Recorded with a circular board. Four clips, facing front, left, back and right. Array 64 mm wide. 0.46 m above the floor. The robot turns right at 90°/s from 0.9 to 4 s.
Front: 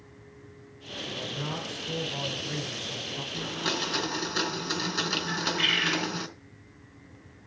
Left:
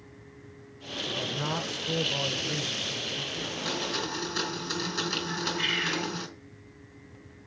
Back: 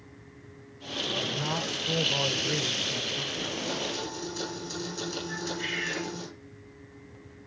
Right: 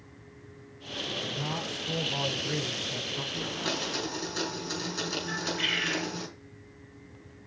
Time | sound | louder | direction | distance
1.1 | a man speaking | left 3 dB, back 3 dB | 65° left | 2 m
3.3 | a blender | right 1 dB, front 5 dB | 35° right | 5 m
5.3 | a bird | left 1 dB, front 5 dB | 5° right | 5.5 m